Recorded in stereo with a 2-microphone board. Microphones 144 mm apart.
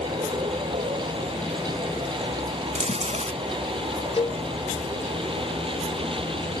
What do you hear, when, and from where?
0.0 s a vehicle: 40° right (ahead or behind)
2.8 s chewing: 55° right (ahead or behind)
4.2 s a cowbell: 40° left (ahead or behind)